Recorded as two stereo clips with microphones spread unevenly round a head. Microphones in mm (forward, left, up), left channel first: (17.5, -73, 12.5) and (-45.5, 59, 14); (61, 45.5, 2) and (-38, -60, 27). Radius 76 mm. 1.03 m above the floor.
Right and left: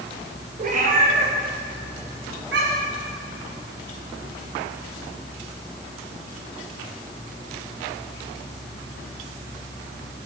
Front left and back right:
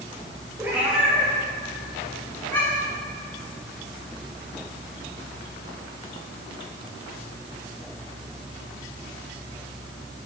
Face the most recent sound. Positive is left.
turn(degrees=125)